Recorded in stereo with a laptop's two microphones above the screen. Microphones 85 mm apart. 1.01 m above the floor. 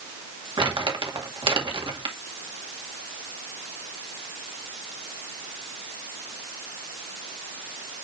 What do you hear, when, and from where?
0.6 s crumpling: 75° right (ahead or behind), 2 m